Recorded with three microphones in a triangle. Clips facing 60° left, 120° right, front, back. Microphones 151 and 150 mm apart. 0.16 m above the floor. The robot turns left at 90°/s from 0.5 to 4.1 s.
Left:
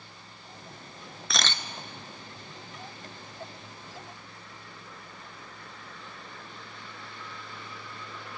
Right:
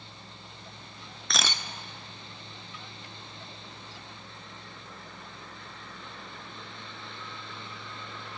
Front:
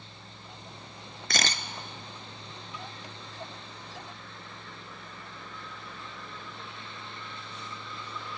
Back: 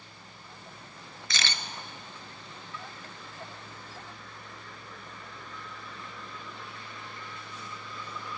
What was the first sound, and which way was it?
A camera shutter, 25° right.